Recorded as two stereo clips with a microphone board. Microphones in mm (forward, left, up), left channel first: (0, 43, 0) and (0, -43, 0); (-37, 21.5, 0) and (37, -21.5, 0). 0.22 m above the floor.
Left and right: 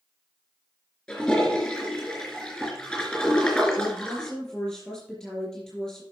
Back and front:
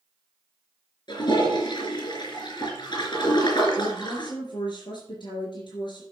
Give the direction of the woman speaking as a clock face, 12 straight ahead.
6 o'clock.